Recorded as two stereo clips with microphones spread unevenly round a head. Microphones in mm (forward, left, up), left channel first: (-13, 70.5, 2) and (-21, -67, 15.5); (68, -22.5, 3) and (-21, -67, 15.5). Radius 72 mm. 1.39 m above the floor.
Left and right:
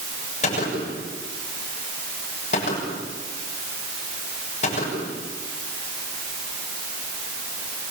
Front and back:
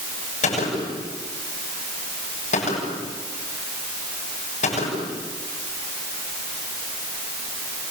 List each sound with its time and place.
0.4 s a gunshot: 40° left, 9.5 m